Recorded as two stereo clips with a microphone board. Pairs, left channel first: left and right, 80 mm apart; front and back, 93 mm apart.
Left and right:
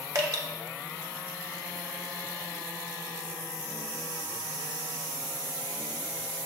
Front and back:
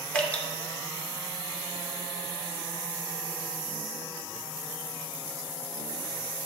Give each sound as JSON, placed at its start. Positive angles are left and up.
{"t": 0.1, "sound": "dripping", "azimuth_deg": -70, "distance_m": 1.2}